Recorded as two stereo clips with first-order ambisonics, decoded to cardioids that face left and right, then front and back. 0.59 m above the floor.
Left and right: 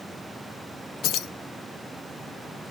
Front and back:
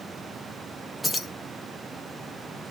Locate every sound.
1.0 s keys jangling: 85° left, 0.5 m